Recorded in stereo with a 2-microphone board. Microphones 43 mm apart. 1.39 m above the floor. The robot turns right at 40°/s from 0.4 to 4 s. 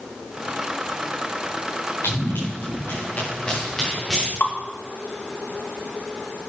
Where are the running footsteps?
80° left, 8.5 m; by 4.3 s centre (ahead or behind), 9 m.